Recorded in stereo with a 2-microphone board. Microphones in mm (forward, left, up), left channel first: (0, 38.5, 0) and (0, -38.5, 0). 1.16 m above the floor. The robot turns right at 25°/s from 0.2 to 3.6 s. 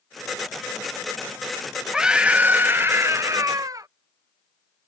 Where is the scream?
170° right; by 3.9 s 130° right.